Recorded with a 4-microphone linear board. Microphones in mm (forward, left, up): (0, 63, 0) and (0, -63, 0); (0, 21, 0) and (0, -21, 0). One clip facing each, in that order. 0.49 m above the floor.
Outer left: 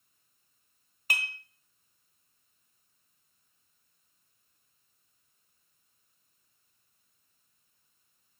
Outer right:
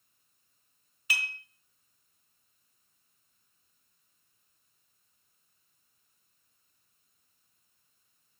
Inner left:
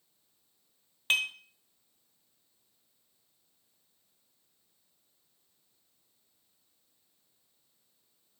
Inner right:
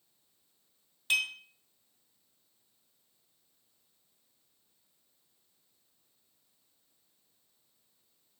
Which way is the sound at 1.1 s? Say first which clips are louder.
Outer left 1 dB, inner left 1 dB; 50° left (ahead or behind).